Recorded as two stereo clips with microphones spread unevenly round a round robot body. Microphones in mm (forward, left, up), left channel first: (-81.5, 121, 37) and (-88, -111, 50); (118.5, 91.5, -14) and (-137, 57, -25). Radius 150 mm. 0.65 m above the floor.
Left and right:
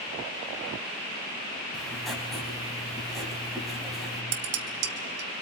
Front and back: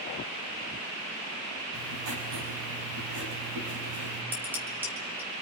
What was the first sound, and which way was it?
Writing, straight behind.